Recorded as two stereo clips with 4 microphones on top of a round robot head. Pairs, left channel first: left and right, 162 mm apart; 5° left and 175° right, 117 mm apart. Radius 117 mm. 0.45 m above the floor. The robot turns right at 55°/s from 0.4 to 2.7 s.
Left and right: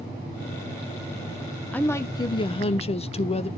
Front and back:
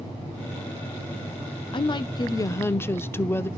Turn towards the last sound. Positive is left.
turn(degrees=65)